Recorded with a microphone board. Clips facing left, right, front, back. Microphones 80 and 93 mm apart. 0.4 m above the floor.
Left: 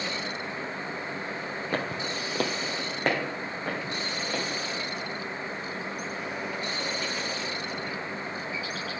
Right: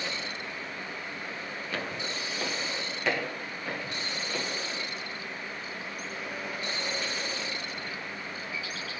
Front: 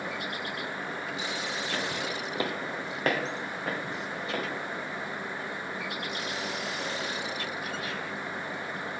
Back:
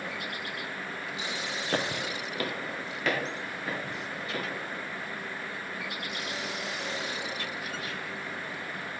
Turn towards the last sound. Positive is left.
turn(degrees=40)